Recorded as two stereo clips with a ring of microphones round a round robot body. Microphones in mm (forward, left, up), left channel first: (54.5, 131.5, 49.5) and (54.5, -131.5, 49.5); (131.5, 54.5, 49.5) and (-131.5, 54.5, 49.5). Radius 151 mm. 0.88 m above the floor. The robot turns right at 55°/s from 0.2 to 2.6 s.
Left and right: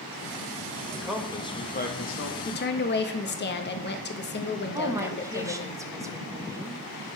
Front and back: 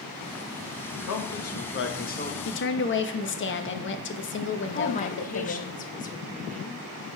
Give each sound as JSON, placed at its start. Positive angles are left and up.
{"t": 0.9, "sound": "a man speaking", "azimuth_deg": -10, "distance_m": 1.3}
{"t": 2.5, "sound": "a woman speaking", "azimuth_deg": 35, "distance_m": 1.0}
{"t": 4.7, "sound": "a woman speaking", "azimuth_deg": -20, "distance_m": 0.9}